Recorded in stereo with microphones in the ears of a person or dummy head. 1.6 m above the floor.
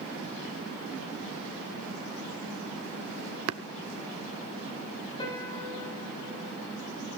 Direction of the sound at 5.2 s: 25° left (ahead or behind).